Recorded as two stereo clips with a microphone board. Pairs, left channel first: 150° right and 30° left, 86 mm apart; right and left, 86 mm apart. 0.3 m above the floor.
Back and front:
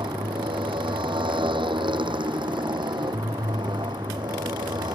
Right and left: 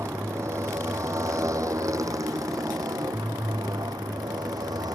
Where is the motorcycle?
35° left; by 5.0 s 55° left.